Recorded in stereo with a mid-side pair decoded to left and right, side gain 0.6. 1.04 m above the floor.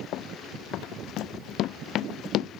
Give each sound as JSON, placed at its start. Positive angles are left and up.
{"t": 0.1, "sound": "running footsteps", "azimuth_deg": 60}